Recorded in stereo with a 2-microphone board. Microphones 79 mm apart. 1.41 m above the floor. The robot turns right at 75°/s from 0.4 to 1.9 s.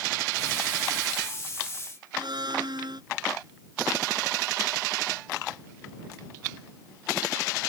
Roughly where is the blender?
Right.